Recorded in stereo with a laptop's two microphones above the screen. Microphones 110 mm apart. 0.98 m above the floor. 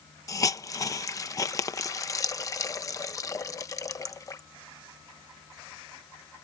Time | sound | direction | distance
0.3 | a hiss | 35° left (ahead or behind) | ?